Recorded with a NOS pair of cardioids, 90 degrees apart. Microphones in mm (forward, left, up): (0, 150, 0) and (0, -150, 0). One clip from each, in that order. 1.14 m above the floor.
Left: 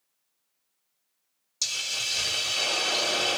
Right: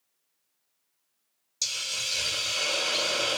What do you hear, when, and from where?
1.6 s a hiss: 15° left, 1.1 m